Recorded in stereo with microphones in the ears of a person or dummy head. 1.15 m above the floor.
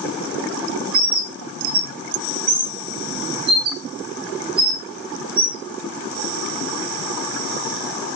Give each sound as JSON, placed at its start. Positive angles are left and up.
{"t": 0.9, "sound": "a bird", "side_deg": -35, "distance_m": 3.0}